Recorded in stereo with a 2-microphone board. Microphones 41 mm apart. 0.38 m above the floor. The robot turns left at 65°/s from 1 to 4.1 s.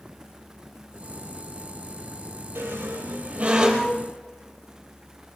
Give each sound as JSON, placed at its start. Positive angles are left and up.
{"t": 2.5, "sound": "a squeak", "side_deg": -85, "distance_m": 3.0}